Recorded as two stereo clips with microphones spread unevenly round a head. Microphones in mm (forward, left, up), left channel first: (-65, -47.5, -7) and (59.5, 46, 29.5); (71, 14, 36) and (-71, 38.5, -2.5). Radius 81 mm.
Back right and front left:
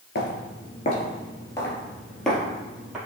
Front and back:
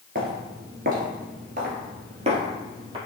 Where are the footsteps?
160° right, 1.8 m; by 3.0 s 110° left, 2.5 m.